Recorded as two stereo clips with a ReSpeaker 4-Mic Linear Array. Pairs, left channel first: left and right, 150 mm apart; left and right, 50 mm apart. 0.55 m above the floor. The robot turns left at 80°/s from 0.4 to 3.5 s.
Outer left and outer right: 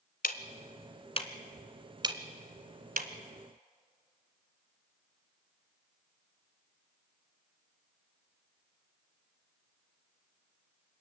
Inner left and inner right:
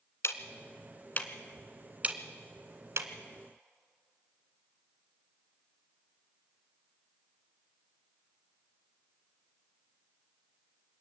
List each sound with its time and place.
0.2 s ticking: 75° left (ahead or behind), 1.4 m; by 3.1 s 65° right (ahead or behind), 1.4 m